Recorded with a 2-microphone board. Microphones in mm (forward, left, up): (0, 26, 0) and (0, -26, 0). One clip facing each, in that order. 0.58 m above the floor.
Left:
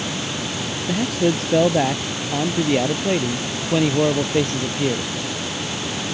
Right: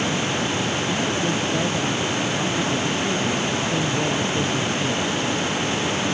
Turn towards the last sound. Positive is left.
turn(degrees=70)  # may be behind; listen again after turning